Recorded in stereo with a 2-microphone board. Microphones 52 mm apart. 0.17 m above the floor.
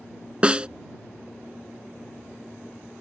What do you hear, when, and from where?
0.4 s a snare drum: 20° right (ahead or behind)